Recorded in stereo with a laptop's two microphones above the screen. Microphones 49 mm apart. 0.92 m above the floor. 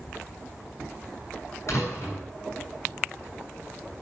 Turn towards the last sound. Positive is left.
turn(degrees=60)  # may be behind; listen again after turning